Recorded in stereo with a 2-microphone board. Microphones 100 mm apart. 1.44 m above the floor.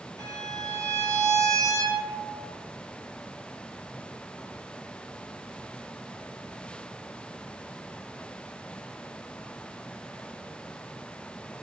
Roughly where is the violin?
Right.